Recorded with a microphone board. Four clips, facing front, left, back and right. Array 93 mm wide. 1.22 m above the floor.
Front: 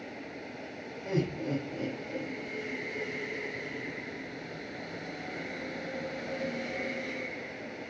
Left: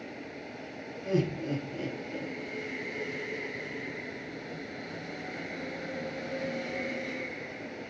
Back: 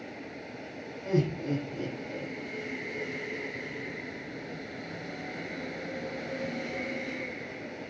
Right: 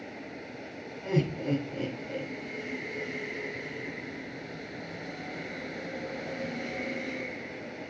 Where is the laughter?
70° right, 7 m.